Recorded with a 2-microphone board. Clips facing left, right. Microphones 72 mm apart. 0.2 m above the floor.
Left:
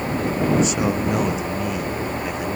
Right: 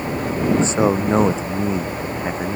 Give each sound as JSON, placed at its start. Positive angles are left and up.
{"t": 0.5, "sound": "a man speaking", "side_deg": -30}